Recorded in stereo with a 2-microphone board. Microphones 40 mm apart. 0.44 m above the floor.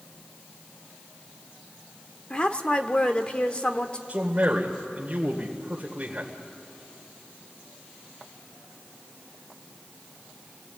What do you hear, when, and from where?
2.3 s a woman speaking: 25° left (ahead or behind), 1.4 m
4.1 s a man speaking: 30° right (ahead or behind), 1.9 m